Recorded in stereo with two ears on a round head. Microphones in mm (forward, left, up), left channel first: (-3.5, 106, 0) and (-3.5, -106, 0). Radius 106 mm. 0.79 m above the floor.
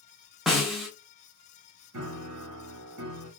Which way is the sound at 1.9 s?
70° right (ahead or behind).